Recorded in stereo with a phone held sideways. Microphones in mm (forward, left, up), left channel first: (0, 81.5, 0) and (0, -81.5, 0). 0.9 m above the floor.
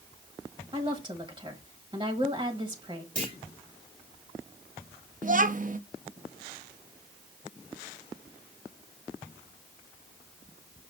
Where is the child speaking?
50° right (ahead or behind), 0.6 m.